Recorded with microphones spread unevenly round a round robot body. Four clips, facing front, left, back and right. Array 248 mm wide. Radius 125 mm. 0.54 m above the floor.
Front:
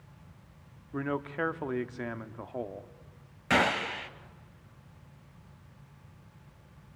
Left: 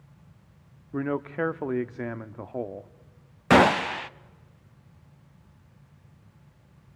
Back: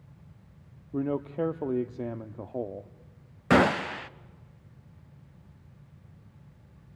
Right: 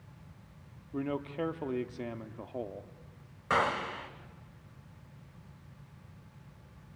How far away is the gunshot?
About 0.5 m.